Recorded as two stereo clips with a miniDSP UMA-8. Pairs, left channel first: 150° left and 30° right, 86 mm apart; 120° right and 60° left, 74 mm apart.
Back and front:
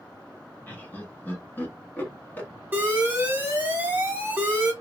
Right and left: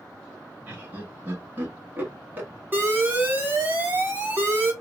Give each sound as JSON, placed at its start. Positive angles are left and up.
{"t": 0.7, "sound": "laughter", "azimuth_deg": 100, "distance_m": 1.2}
{"t": 2.7, "sound": "an alarm", "azimuth_deg": 20, "distance_m": 0.8}